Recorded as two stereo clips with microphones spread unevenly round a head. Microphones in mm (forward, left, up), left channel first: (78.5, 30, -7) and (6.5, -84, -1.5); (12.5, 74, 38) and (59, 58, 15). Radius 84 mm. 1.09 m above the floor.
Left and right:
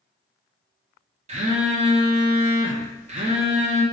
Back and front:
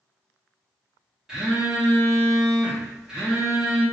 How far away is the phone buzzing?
About 0.6 m.